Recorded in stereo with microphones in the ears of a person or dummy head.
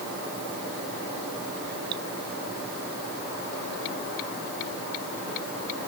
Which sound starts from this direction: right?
Dripping, at 1.9 s.